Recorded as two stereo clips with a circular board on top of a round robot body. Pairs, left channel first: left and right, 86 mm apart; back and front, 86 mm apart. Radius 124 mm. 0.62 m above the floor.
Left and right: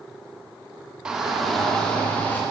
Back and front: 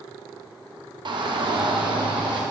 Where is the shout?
15° right, 1.7 m; by 2.4 s 20° left, 1.9 m.